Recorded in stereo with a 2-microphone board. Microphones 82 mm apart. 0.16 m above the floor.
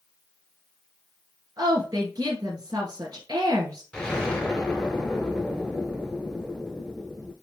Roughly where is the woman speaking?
Right.